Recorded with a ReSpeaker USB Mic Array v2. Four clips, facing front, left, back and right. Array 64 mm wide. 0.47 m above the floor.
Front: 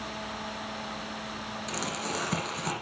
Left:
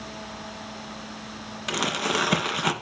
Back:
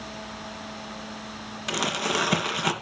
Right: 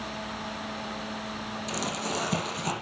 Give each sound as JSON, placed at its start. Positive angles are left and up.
{"t": 1.7, "sound": "crumpling", "azimuth_deg": 125, "distance_m": 2.0}